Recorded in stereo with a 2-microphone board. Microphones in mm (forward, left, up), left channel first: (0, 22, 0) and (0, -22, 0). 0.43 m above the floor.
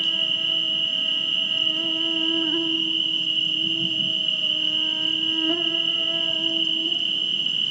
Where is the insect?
Centre (ahead or behind), 1.5 m.